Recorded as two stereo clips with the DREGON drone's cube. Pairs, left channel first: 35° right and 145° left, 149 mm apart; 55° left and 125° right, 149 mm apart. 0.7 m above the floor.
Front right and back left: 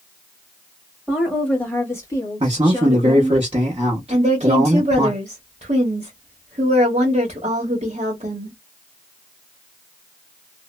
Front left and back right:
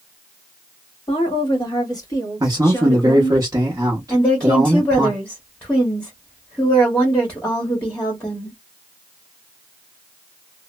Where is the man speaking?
Straight behind, 0.8 m.